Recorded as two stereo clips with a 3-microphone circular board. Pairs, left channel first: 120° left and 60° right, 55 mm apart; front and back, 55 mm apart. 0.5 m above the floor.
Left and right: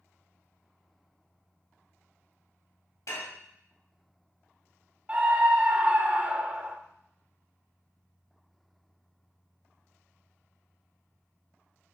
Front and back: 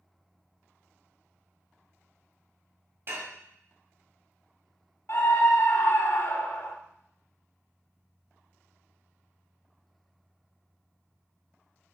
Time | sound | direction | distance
3.1 | dishes clattering | 140° left | 1.8 m
5.1 | a scream | straight ahead | 1.2 m